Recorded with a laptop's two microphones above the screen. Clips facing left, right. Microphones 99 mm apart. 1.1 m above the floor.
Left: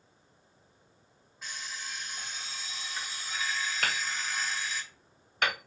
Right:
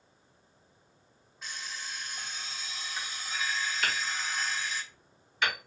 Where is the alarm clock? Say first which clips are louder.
Even; centre (ahead or behind), 1.6 m.